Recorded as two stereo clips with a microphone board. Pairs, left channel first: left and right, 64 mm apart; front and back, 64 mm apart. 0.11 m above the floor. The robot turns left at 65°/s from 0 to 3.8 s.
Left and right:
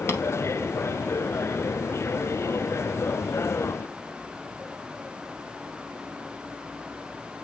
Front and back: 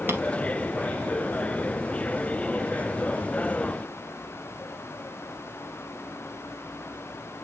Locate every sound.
0.1 s tapping: 130° left, 2.5 m; by 0.2 s 120° left, 2.5 m